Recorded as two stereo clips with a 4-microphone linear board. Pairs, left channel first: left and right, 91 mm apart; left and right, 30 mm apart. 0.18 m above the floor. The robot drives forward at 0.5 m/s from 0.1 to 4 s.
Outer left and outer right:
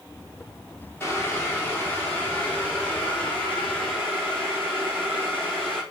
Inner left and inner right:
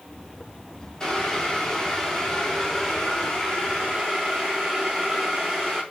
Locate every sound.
1.0 s boiling: 25° left (ahead or behind), 2 m; by 5.8 s 15° left (ahead or behind), 3.5 m